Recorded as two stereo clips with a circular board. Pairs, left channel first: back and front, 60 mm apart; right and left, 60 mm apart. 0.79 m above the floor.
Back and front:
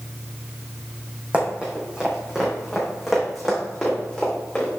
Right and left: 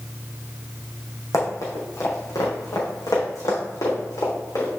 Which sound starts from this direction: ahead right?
Running footsteps, at 1.3 s.